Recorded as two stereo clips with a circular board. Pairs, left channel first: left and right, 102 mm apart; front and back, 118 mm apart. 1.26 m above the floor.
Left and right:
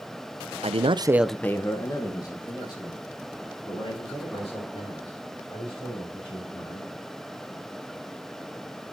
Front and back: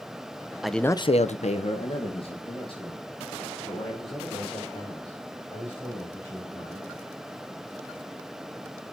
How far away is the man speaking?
About 0.7 m.